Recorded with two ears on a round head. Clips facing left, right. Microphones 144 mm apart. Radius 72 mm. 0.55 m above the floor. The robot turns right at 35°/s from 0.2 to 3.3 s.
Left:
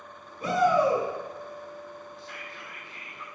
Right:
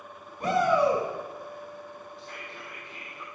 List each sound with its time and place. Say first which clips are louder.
0.4 s a shout: even; 45° right (ahead or behind), 5 m; by 1.1 s 65° right (ahead or behind), 5 m
2.2 s whispering: right 1 dB; 50° right, 1.9 m; by 3.2 s 10° right, 1.9 m